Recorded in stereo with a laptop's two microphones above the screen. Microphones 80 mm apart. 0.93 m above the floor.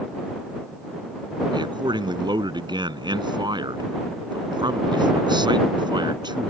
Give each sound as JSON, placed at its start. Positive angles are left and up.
{"t": 1.5, "sound": "a man speaking", "side_deg": -90}